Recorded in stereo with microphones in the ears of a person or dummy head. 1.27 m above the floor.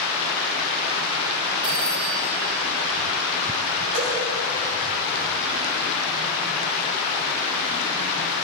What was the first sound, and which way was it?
A phone ringing, 40° right (ahead or behind).